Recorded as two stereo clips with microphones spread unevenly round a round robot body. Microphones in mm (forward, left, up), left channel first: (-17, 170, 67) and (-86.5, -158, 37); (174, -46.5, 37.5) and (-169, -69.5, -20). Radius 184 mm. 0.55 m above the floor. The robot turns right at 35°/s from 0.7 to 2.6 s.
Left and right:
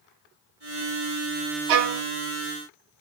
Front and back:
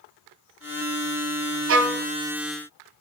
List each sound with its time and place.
1.7 s a violin: 120° right, 0.5 m; by 2.0 s 110° right, 0.5 m